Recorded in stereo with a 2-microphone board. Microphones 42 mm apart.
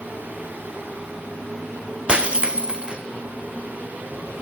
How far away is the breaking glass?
About 3 m.